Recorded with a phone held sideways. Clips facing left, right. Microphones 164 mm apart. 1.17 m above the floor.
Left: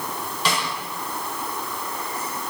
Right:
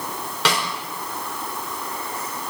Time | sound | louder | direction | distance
0.5 | a snare drum | right 3 dB | 85° right | 5 m